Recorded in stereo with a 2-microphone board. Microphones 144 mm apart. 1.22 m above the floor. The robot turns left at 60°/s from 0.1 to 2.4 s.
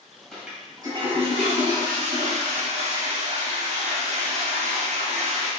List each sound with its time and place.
0.3 s a toilet flushing: 5° left, 2.5 m; by 5.5 s 120° right, 2.5 m